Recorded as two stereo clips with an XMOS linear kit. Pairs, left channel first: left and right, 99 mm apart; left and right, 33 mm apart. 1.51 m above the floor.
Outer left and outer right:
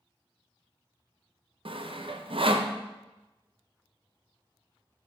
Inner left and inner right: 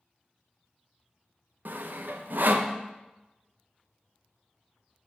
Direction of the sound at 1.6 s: 65° right (ahead or behind).